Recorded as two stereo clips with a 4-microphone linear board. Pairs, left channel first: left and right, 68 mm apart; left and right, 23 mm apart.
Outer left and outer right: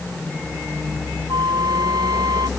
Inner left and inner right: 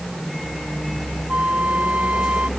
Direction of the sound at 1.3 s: 90° right.